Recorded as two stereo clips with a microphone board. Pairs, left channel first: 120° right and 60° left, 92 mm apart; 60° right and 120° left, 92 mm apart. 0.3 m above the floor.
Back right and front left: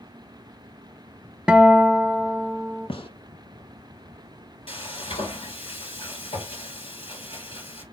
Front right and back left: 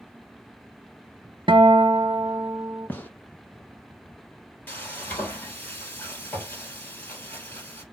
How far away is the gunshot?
About 1.3 m.